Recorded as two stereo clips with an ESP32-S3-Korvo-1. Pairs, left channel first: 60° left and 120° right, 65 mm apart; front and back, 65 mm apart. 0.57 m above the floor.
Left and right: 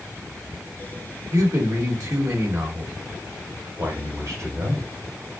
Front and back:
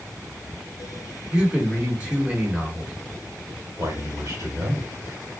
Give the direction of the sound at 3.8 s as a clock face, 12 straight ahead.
5 o'clock.